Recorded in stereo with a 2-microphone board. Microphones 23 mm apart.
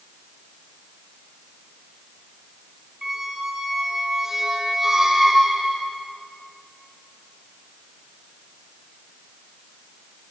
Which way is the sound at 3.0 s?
15° right (ahead or behind).